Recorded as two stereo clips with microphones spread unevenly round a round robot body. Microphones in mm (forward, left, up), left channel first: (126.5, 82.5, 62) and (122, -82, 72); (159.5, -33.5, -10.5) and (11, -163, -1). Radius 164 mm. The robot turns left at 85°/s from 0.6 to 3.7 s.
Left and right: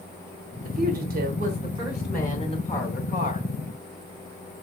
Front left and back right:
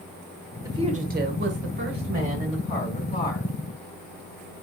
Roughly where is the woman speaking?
Ahead right.